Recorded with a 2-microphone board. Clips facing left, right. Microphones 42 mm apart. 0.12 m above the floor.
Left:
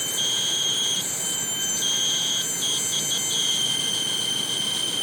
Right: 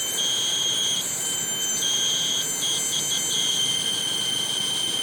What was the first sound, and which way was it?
Only background noise.